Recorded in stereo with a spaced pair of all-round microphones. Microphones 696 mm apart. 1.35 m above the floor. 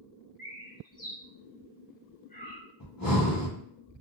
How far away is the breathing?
About 1.0 m.